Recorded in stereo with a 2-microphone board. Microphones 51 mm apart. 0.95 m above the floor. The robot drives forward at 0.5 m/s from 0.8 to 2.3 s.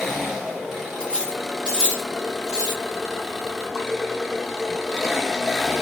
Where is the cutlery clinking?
15° left (ahead or behind), 0.7 m; by 2.8 s 10° left (ahead or behind), 1.4 m.